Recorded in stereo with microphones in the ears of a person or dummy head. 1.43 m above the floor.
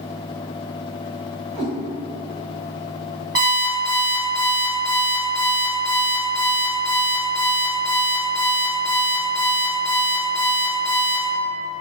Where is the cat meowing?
10° right (ahead or behind), 1.5 m.